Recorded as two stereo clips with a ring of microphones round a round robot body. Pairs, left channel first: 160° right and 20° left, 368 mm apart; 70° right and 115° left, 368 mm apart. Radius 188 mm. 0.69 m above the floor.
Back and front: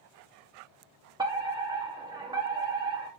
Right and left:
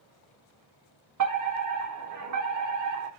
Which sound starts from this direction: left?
A fire alarm, at 1.2 s.